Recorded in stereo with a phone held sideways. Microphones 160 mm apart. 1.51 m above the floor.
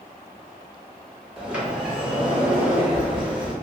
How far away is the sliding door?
About 0.7 m.